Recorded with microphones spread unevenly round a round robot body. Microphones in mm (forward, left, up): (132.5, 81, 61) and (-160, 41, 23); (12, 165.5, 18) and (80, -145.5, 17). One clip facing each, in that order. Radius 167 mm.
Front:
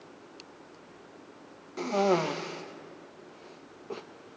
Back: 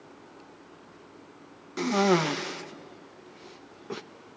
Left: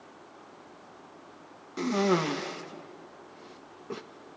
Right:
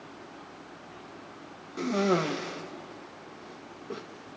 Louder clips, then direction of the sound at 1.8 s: Back 3 dB, even; straight behind.